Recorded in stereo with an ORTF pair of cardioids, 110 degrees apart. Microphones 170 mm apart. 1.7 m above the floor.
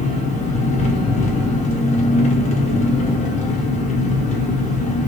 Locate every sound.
0.0 s an engine running: 45° left, 0.9 m